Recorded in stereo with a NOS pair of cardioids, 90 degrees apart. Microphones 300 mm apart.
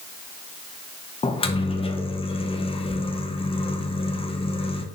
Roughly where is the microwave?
Ahead.